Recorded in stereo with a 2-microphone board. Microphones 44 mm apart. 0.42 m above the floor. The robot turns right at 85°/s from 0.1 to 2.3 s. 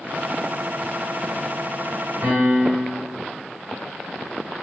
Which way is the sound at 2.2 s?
70° right (ahead or behind).